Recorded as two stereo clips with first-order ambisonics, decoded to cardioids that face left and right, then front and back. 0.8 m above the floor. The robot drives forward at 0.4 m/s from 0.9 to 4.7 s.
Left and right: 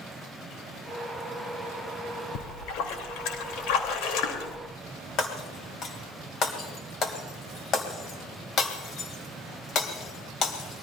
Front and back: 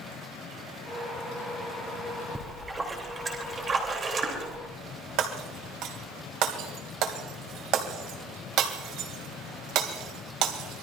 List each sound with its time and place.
2.4 s a splash: 100° left, 2.5 m; by 4.6 s 115° left, 3 m
5.2 s breaking glass: 145° left, 2.5 m